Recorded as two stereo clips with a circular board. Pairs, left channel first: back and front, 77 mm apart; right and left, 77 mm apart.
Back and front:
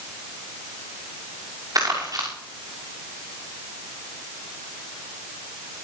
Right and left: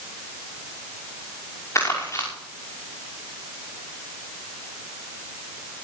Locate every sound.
1.8 s crumpling: 40° right, 5.5 m